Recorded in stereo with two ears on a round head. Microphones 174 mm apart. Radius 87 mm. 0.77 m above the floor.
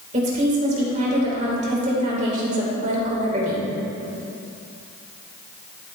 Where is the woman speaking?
35° right (ahead or behind), 3 m.